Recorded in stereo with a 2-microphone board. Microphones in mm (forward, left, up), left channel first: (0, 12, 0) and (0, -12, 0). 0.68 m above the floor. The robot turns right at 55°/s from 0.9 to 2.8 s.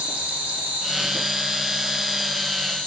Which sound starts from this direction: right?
An insect, at 0.0 s.